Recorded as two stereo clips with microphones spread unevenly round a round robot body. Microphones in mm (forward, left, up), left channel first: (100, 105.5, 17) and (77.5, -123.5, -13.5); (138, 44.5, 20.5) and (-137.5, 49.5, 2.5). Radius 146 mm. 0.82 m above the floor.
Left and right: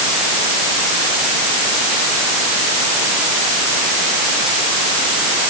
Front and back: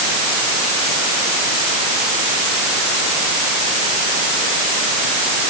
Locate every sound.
Only background noise.